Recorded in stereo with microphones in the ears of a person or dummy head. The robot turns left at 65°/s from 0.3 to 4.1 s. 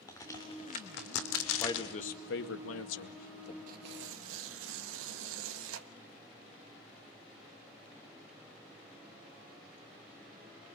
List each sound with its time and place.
0.1 s a crack: 15° left (ahead or behind), 3 m; by 2.0 s 60° left (ahead or behind), 3 m
1.6 s a man speaking: 165° left, 2.0 m; by 3.6 s 35° left, 2.0 m
3.7 s tearing paper: 45° right (ahead or behind), 1.3 m; by 5.9 s 75° right (ahead or behind), 1.3 m